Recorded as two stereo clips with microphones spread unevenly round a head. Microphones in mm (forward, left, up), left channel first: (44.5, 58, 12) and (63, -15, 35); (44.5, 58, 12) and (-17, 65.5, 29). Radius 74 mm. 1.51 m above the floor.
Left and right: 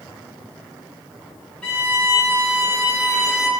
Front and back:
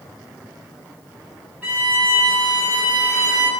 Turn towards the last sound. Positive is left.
turn(degrees=-155)